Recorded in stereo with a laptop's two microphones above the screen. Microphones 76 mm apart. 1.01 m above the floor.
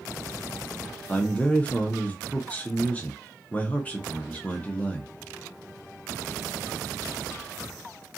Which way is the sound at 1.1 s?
20° left (ahead or behind).